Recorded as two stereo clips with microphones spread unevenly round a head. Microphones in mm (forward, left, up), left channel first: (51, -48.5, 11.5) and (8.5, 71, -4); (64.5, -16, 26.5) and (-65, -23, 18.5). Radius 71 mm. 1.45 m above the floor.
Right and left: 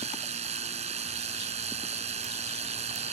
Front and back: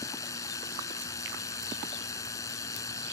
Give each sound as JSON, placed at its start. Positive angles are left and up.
{"t": 0.0, "sound": "a machine running", "azimuth_deg": 70}